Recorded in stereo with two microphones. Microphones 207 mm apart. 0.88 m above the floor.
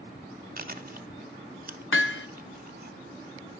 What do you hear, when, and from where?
0.6 s chewing: 45° right (ahead or behind), 0.9 m
1.9 s hammering: 75° left (ahead or behind), 0.5 m